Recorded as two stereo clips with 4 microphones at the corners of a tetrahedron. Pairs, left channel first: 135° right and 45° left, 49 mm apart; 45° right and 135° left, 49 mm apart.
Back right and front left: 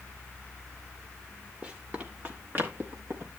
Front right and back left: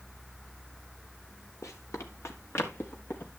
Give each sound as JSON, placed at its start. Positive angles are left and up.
{"t": 1.6, "sound": "running footsteps", "azimuth_deg": -20, "distance_m": 3.0}